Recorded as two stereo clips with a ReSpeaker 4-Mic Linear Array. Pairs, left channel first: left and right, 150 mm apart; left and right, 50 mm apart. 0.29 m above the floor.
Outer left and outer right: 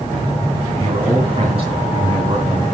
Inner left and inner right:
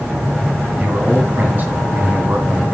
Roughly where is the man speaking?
Right.